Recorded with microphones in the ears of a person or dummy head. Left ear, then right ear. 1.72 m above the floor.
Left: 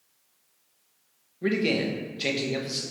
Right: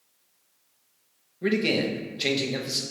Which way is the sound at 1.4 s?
10° right (ahead or behind).